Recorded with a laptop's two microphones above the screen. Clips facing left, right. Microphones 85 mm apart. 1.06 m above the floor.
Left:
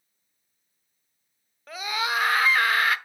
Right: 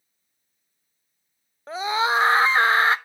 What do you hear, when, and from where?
1.7 s a scream: 30° right (ahead or behind), 0.9 m